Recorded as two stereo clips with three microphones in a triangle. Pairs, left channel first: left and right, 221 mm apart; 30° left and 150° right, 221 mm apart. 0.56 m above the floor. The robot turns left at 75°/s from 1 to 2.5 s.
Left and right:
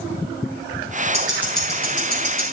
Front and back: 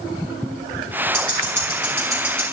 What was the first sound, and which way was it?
Ticking, 150° right.